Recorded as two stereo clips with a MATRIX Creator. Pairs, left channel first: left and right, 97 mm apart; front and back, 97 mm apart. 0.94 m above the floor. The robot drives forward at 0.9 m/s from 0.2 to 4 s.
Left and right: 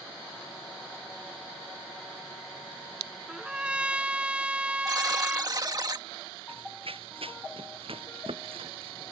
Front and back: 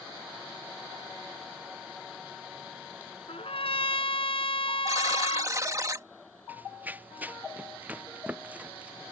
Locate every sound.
3.3 s a trumpet: 10° right; by 5.5 s 15° right
4.9 s a buzzer: 130° right
6.5 s running footsteps: 110° right; by 9.1 s 105° right